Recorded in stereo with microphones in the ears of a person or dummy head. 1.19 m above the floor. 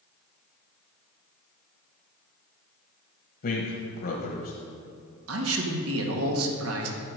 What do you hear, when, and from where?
3.4 s a man speaking: 50° left (ahead or behind), 1.3 m
5.3 s a man speaking: 75° right (ahead or behind), 1.8 m